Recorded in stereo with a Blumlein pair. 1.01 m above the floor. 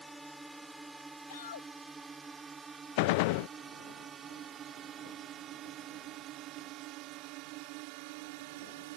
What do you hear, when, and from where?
0.0 s a drone: 5° right; by 9.0 s 50° right
1.3 s a shout: 65° left
3.0 s a gunshot: 50° left